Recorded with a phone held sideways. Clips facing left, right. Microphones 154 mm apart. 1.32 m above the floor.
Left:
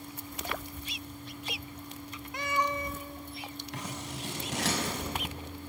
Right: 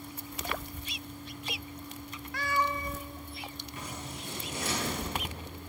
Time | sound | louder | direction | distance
2.3 | a cat meowing | even | 20° left (ahead or behind) | 0.9 m
3.7 | scissors | left 3 dB | 80° left | 5.5 m